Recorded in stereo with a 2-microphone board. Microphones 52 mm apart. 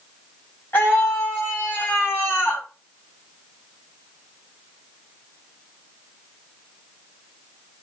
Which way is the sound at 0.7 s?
40° left (ahead or behind).